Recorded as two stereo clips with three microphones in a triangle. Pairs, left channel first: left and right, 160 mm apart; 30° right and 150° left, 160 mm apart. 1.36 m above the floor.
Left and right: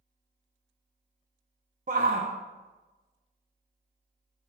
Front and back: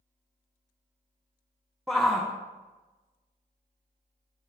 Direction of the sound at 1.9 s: 120° right.